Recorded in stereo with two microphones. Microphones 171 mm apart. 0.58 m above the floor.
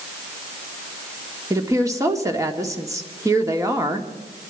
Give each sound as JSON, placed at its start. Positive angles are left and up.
{"t": 1.5, "sound": "a woman speaking", "side_deg": -15, "distance_m": 1.5}